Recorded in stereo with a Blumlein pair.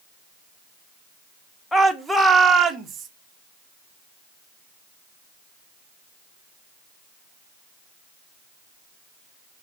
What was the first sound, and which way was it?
A shout, 10° left.